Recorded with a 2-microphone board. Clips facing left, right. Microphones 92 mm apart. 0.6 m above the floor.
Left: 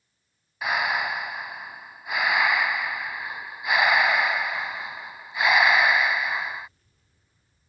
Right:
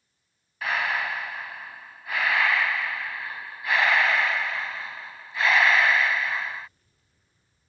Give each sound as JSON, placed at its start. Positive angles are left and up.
{"t": 0.6, "sound": "breathing", "side_deg": 15}